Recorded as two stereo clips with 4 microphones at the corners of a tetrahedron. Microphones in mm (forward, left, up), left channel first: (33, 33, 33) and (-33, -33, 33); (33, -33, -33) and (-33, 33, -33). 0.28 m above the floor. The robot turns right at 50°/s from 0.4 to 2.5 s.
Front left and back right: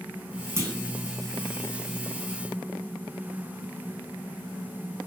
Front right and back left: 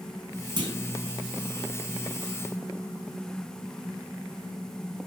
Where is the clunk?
165° left, 0.5 m; by 0.7 s 175° left, 0.5 m.